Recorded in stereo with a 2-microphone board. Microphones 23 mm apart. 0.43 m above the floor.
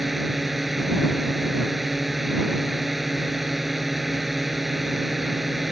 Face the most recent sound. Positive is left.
turn(degrees=-5)  # may be behind; listen again after turning